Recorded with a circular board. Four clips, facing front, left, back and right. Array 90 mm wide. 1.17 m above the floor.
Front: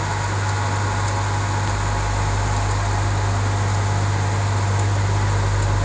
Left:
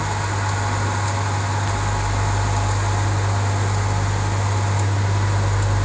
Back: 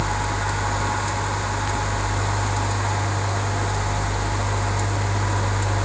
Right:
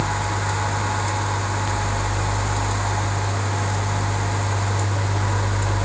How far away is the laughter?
No laughter in this recording.